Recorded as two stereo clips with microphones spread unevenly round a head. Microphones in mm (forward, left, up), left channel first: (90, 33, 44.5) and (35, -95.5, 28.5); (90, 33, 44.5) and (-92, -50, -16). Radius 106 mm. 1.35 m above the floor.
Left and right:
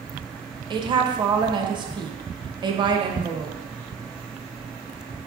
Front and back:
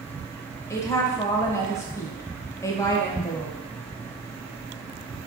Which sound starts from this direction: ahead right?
A woman speaking, at 0.7 s.